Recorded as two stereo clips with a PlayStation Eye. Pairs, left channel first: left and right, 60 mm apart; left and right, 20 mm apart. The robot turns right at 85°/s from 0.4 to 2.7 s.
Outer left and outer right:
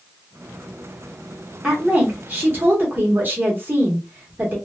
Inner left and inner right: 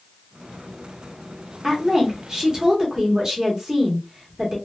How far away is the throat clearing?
I don't hear throat clearing.